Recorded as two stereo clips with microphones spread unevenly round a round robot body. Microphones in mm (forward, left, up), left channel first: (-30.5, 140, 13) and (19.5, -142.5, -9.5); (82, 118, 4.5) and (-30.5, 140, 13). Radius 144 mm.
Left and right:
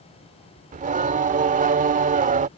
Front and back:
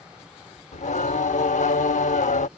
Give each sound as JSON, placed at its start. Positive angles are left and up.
{"t": 0.7, "sound": "singing", "azimuth_deg": -15}